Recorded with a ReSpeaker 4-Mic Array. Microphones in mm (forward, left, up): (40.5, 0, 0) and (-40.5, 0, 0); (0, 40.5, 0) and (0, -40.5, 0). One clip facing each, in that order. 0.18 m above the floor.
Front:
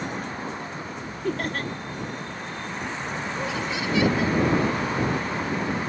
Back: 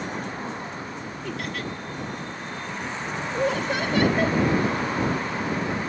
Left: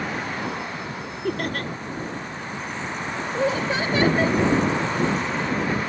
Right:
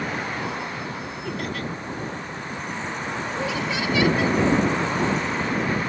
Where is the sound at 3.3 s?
140° left.